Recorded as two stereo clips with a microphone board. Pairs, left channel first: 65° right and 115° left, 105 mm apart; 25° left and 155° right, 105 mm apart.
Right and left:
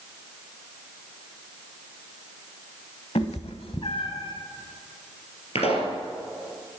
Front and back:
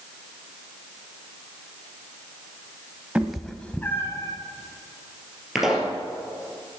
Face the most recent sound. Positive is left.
turn(degrees=-70)